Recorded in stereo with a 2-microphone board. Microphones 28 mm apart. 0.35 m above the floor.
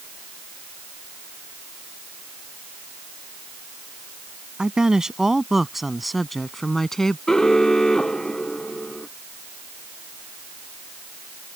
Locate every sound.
4.6 s a woman speaking: 30° right (ahead or behind); by 7.2 s 15° left (ahead or behind)
7.3 s an alarm: 20° left (ahead or behind)